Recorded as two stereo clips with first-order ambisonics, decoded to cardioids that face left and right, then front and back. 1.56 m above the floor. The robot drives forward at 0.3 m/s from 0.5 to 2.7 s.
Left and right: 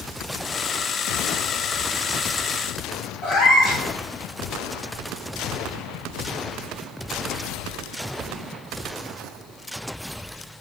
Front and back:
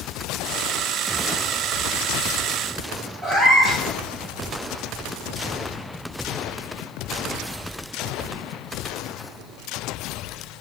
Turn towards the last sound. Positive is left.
turn(degrees=115)